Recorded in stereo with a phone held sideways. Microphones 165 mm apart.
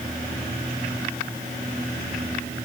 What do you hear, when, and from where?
Only background noise.